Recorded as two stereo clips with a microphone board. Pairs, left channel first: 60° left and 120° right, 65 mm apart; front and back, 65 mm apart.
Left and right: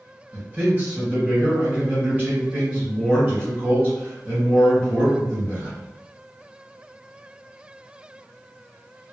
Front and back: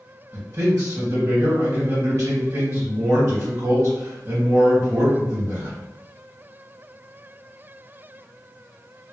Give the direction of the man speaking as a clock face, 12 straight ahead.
6 o'clock.